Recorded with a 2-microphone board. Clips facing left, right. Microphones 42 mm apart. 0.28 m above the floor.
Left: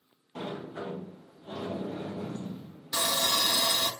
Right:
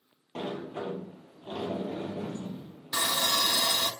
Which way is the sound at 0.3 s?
80° right.